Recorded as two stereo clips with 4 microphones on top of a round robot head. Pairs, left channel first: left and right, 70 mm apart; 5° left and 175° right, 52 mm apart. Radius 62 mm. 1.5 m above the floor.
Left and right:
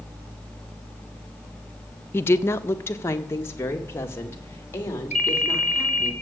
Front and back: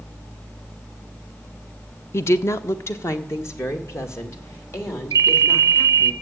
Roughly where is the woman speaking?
Ahead left.